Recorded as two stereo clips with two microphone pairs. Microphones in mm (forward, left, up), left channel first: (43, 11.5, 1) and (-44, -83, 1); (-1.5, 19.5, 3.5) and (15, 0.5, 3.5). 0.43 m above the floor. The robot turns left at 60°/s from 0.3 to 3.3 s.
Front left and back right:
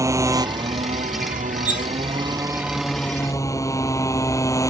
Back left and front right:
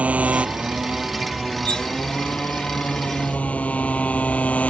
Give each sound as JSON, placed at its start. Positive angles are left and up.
{"t": 0.0, "sound": "a motorcycle", "azimuth_deg": -65}
{"t": 1.6, "sound": "cutlery clinking", "azimuth_deg": 95}